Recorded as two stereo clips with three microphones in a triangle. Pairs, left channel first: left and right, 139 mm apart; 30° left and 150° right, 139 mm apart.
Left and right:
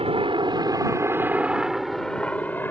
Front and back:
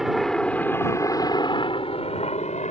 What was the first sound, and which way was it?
A helicopter, 65° right.